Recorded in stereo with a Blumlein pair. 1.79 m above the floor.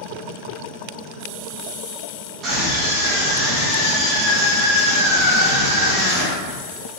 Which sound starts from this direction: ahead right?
A scream, at 2.4 s.